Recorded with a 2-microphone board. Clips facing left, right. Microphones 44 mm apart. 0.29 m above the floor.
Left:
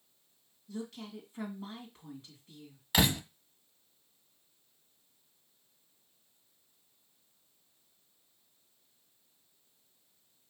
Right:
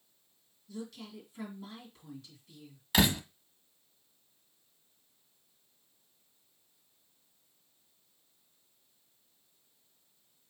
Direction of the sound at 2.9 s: Centre (ahead or behind).